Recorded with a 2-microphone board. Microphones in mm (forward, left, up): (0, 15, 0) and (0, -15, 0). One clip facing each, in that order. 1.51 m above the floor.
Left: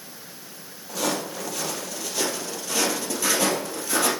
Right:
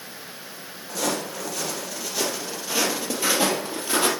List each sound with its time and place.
0.9 s footsteps: 10° left (ahead or behind), 2.5 m; by 4.1 s 35° right (ahead or behind), 2.5 m